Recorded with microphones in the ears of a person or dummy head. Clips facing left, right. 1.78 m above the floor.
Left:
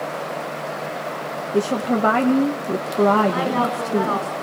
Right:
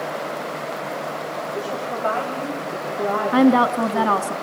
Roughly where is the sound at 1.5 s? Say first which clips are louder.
Left 11 dB; left.